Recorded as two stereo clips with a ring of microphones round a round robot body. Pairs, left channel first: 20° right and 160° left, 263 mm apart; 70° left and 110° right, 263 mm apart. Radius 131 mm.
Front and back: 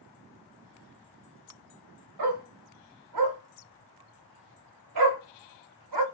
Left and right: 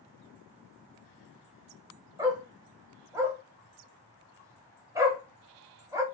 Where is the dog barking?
170° left, 1.0 m.